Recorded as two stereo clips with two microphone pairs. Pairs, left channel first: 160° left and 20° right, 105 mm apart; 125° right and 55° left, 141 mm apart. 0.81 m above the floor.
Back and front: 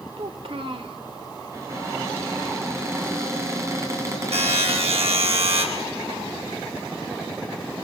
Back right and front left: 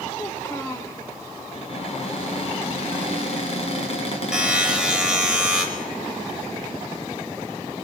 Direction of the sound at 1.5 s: 85° right.